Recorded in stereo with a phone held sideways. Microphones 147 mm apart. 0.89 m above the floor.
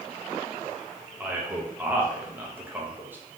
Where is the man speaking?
10° right (ahead or behind), 1.0 m.